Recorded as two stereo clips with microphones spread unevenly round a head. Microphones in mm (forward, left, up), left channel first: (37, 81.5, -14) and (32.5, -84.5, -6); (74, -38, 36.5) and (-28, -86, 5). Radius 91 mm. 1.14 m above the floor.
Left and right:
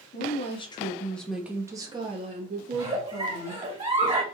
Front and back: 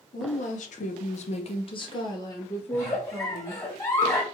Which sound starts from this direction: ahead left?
A woman speaking, at 0.1 s.